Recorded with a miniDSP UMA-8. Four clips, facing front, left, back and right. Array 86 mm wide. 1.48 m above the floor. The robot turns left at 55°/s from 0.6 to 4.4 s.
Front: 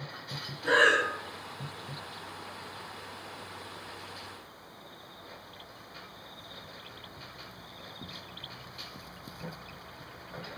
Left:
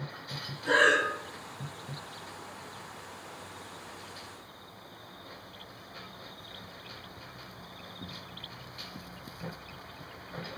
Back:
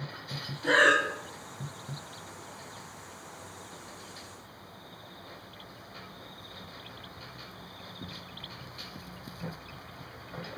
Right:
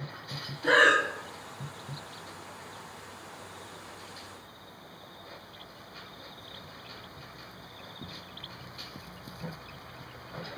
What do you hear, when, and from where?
0.6 s breathing: 105° right, 1.1 m; by 1.0 s 125° right, 1.1 m